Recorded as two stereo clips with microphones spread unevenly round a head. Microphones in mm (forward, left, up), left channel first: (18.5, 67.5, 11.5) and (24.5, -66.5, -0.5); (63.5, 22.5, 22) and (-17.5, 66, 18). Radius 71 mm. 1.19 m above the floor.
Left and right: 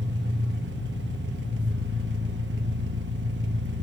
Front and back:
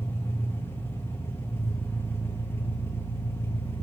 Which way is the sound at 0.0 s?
105° right.